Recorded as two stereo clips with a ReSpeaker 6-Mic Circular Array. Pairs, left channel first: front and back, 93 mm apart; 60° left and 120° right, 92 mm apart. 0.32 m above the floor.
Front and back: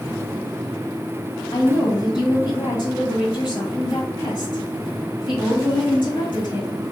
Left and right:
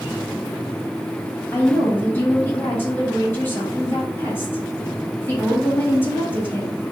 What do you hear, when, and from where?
1.5 s a woman speaking: straight ahead, 1.7 m